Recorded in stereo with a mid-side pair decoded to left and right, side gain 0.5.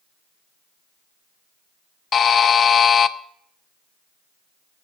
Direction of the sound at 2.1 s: 45° left.